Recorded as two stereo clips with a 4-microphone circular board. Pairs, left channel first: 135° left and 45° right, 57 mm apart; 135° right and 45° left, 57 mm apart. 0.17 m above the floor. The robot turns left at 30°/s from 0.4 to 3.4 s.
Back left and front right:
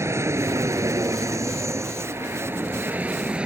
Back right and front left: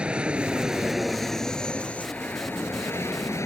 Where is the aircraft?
25° right; by 3.5 s 115° right.